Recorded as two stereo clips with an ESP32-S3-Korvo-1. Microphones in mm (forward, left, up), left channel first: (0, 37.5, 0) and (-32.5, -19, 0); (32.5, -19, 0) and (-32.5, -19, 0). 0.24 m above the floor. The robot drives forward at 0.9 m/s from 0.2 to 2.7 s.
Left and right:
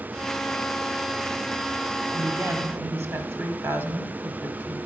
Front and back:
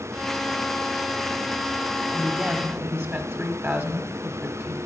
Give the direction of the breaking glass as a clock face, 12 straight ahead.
No breaking glass in this recording.